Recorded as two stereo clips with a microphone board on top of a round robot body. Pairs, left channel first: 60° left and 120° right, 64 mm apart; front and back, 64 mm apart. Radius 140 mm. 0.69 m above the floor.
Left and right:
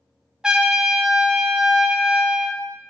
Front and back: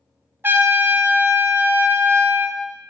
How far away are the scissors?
No scissors in this recording.